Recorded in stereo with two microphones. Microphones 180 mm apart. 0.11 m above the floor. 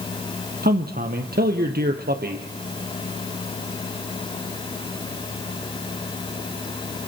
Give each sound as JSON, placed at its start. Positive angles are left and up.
{"t": 0.6, "sound": "a man speaking", "side_deg": -60, "distance_m": 3.0}